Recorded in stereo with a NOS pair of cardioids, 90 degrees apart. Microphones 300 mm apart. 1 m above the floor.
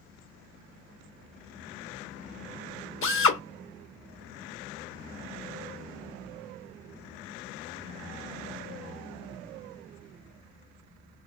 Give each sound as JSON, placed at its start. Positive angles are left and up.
{"t": 3.0, "sound": "a drill", "azimuth_deg": 45, "distance_m": 1.0}